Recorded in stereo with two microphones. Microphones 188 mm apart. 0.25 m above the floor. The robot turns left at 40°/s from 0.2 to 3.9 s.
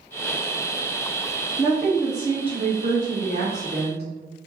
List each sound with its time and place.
1.6 s a woman speaking: straight ahead, 2.0 m; by 4.0 s 90° right, 2.0 m